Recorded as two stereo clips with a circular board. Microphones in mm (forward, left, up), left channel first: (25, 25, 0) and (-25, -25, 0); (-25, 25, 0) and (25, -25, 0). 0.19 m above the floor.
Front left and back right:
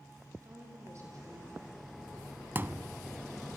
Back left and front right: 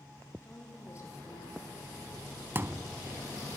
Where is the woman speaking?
175° right, 6.5 m.